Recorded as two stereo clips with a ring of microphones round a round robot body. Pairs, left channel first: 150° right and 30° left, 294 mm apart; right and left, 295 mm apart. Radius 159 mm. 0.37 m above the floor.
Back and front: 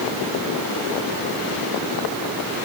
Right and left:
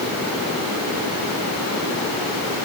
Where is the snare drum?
I don't hear a snare drum.